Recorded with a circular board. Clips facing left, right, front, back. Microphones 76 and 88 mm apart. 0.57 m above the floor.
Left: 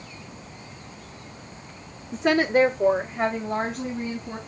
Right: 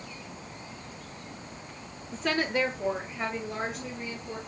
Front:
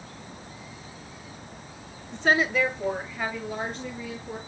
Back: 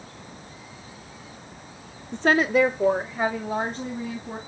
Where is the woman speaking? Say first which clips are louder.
Left 8 dB, back 4 dB; 160° left, 1.0 m; by 4.4 s 140° left, 3.5 m.